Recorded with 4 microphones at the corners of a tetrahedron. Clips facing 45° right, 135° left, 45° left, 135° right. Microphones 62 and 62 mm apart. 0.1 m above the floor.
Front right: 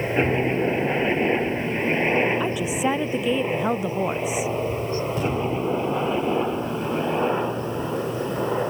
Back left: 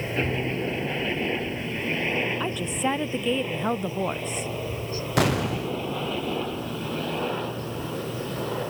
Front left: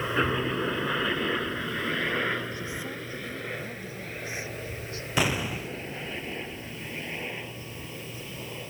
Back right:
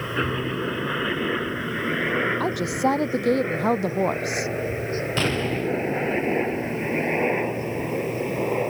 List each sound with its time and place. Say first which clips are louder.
0.0 s a helicopter: front right 6 dB, back right 1 dB; 35° right; by 8.7 s 110° right
2.4 s a woman speaking: front right 4 dB, back right 12 dB; 130° right
5.2 s an explosion: back left 5 dB, back right 1 dB; 125° left